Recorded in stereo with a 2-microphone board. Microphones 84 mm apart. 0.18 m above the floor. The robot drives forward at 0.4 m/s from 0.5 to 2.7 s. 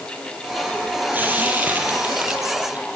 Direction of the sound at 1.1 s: 20° right (ahead or behind).